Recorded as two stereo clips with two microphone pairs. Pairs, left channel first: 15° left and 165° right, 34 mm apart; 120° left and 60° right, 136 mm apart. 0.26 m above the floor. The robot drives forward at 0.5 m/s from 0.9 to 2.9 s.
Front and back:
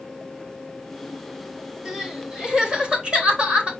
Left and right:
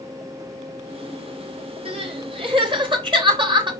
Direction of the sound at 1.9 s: 95° right.